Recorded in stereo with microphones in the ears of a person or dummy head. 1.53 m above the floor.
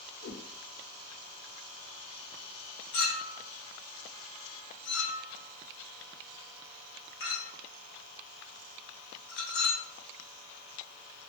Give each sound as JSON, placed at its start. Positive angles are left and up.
{"t": 0.2, "sound": "a whoosh", "side_deg": 85, "distance_m": 1.0}
{"t": 2.9, "sound": "a clink", "side_deg": 50, "distance_m": 1.0}